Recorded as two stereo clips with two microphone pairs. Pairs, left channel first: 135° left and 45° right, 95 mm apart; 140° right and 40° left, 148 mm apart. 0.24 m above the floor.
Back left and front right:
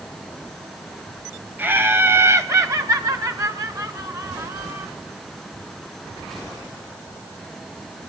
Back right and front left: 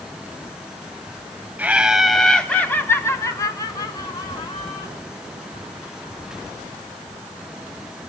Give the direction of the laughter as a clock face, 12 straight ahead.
12 o'clock.